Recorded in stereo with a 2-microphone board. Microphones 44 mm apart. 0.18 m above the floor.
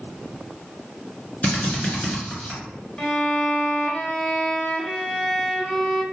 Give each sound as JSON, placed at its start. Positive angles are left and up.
{"t": 1.4, "sound": "a drill", "side_deg": 35, "distance_m": 1.8}
{"t": 3.0, "sound": "a violin", "side_deg": 10, "distance_m": 0.5}